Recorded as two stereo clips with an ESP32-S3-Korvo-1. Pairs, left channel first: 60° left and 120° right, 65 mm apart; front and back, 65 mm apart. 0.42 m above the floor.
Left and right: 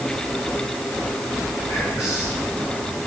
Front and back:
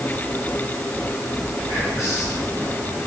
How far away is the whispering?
About 4 m.